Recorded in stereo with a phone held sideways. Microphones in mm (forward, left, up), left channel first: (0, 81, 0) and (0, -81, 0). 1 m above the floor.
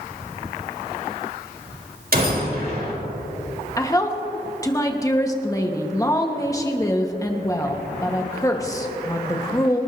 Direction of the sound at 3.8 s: 20° left (ahead or behind).